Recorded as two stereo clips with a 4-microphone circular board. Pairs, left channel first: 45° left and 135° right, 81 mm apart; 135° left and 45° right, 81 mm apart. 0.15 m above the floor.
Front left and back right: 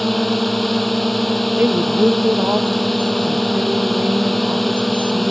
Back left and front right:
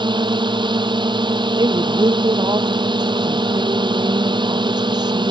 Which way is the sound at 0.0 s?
45° right.